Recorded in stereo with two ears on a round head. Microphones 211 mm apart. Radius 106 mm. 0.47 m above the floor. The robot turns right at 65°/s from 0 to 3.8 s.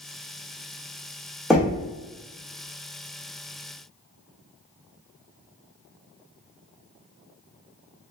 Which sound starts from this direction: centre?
Knocking, at 1.5 s.